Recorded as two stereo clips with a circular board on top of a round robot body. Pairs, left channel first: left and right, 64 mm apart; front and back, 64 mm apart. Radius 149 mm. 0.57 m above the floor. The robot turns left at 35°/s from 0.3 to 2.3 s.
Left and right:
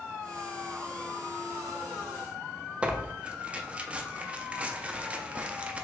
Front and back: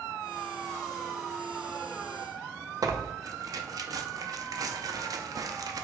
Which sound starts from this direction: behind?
Tearing paper, at 2.8 s.